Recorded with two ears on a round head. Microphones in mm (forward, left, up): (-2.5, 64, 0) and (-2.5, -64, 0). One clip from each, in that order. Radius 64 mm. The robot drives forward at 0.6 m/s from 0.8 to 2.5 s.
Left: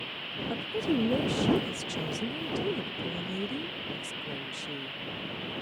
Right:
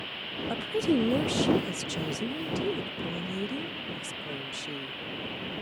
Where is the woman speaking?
30° right (ahead or behind); by 5.6 s 10° right (ahead or behind).